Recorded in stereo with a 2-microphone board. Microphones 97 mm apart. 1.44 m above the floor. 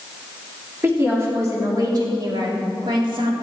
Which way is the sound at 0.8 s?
25° right (ahead or behind).